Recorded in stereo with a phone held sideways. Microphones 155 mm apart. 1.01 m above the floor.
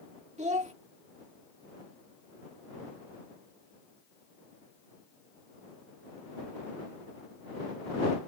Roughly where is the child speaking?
Right.